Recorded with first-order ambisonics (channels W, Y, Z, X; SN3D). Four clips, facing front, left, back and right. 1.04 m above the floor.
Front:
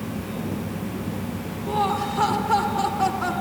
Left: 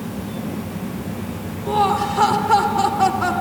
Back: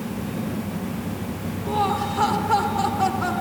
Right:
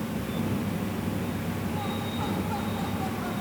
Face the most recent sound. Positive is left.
turn(degrees=90)